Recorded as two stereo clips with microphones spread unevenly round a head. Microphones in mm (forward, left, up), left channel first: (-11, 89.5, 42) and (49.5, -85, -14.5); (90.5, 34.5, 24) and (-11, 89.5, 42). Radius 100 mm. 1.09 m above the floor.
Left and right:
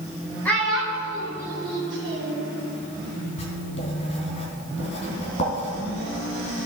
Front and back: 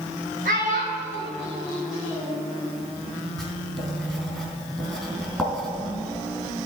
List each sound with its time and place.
0.5 s a child speaking: 170° right, 1.7 m; by 2.4 s 130° right, 2.5 m
3.4 s writing: 65° left, 3 m